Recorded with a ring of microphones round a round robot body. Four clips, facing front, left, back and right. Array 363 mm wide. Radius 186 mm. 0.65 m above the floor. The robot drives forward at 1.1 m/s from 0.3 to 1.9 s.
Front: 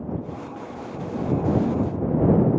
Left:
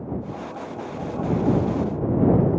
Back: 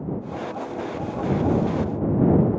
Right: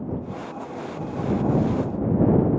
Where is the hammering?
I don't hear hammering.